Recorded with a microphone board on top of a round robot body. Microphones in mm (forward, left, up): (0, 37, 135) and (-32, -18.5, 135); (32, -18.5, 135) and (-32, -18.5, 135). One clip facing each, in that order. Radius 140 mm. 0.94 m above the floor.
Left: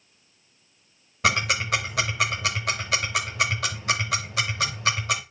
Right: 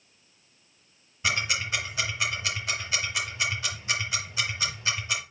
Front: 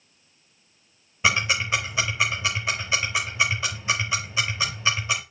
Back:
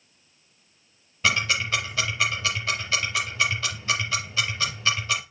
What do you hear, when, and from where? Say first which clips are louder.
1.2 s ticking: left 5 dB, front 1 dB; 75° left, 0.8 m